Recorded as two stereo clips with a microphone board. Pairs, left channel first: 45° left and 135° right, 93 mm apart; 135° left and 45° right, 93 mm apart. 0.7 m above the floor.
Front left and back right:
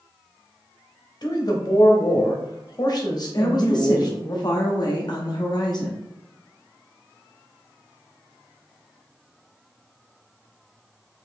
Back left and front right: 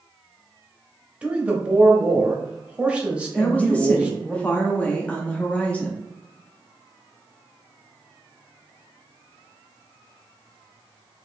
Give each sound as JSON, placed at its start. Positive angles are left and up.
{"t": 1.2, "sound": "a man speaking", "azimuth_deg": 30, "distance_m": 0.9}
{"t": 3.4, "sound": "a woman speaking", "azimuth_deg": 65, "distance_m": 0.7}